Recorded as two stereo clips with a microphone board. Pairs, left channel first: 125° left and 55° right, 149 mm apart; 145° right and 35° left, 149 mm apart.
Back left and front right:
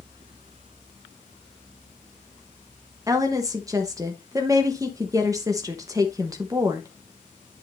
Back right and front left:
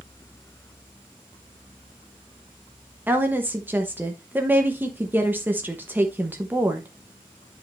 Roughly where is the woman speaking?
Ahead right.